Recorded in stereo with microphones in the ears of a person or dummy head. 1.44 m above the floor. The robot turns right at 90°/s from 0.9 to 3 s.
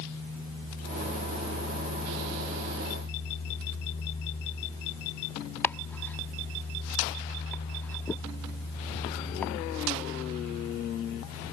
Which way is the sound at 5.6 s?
5° left (ahead or behind).